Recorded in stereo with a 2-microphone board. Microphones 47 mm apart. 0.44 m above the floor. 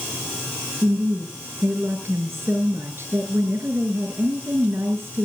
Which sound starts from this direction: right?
A woman speaking, at 0.8 s.